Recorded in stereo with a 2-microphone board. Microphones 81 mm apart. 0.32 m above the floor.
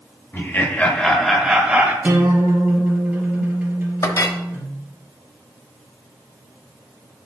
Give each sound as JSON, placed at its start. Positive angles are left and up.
{"t": 0.3, "sound": "laughter", "side_deg": 35, "distance_m": 1.3}
{"t": 2.0, "sound": "a guitar", "side_deg": -20, "distance_m": 2.5}
{"t": 4.0, "sound": "a clink", "side_deg": 45, "distance_m": 0.8}